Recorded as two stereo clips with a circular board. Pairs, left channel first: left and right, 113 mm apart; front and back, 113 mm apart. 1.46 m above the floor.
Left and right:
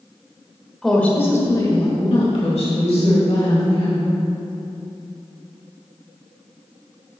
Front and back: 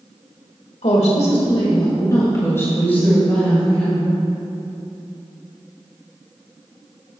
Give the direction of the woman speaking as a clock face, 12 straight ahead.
12 o'clock.